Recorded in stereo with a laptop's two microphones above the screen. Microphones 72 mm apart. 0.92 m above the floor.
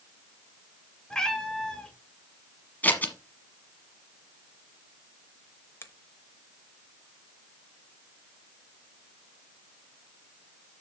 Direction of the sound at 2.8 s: 25° left (ahead or behind).